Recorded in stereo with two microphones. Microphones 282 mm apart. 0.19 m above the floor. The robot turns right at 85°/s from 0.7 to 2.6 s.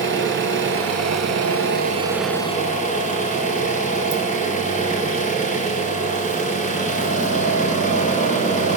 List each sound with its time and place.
0.0 s an engine running: 130° right, 0.8 m; by 8.8 s 30° left, 0.8 m